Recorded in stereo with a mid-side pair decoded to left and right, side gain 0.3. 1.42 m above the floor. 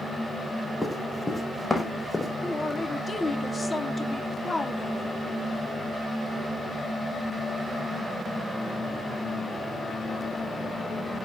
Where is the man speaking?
30° left, 3 m.